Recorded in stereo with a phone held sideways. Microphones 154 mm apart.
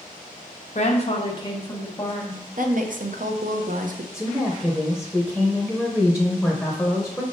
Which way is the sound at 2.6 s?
65° right (ahead or behind).